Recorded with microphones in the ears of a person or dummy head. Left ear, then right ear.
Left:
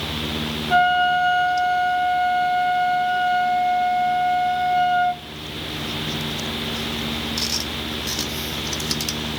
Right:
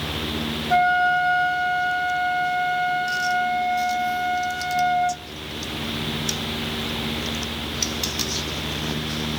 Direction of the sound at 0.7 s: Centre (ahead or behind).